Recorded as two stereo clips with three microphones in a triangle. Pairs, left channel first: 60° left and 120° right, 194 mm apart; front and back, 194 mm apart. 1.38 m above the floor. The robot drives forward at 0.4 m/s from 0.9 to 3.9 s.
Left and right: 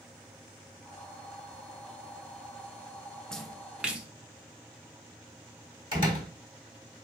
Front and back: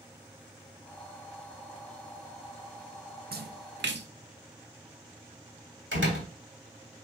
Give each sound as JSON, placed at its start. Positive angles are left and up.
{"t": 3.3, "sound": "a splash", "azimuth_deg": 145, "distance_m": 0.6}
{"t": 5.9, "sound": "a door slam", "azimuth_deg": 175, "distance_m": 2.5}